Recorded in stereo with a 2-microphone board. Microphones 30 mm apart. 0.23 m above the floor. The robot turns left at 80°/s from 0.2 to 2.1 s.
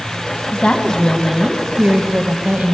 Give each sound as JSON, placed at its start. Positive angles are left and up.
{"t": 0.5, "sound": "a woman speaking", "azimuth_deg": 45, "distance_m": 1.5}